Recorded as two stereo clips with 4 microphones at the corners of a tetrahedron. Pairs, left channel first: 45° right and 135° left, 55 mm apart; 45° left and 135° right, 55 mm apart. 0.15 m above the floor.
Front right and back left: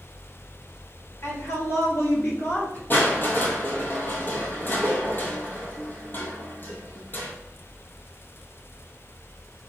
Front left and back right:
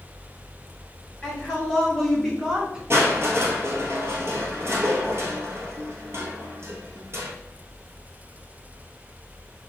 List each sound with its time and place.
1.2 s a woman speaking: 35° right, 1.8 m; by 2.8 s 70° right, 1.3 m
2.9 s crushing: 95° right, 1.1 m